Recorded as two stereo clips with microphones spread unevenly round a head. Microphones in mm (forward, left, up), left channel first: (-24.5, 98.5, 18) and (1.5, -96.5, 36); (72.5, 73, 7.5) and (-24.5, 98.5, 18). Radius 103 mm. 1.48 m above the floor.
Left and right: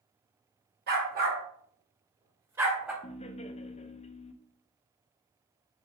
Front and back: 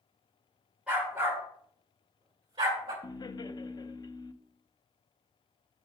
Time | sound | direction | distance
0.9 | a dog barking | 115° right | 2.0 m
3.0 | laughter | 35° left | 0.7 m